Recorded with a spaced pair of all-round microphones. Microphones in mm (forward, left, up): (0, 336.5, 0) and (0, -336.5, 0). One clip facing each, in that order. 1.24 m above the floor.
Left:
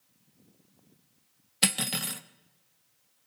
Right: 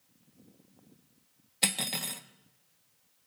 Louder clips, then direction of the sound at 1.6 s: Left 4 dB; 45° left (ahead or behind).